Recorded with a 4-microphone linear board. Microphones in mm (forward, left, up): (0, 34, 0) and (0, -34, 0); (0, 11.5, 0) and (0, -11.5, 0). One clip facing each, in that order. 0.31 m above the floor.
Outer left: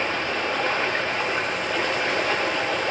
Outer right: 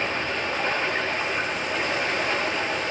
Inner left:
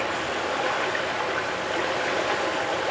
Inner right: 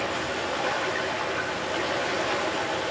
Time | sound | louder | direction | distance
0.0 | running water | outer left 2 dB, inner left 2 dB | 65° left (ahead or behind) | 6.5 m